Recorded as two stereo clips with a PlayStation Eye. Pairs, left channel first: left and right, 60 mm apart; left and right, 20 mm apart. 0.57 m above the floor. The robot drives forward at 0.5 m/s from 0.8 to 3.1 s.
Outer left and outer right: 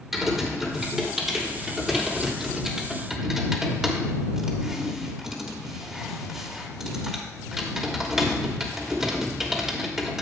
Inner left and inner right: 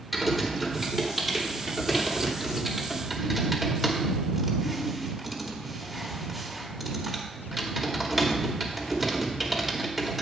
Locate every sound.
0.1 s typing on a keyboard: 5° right (ahead or behind), 2.0 m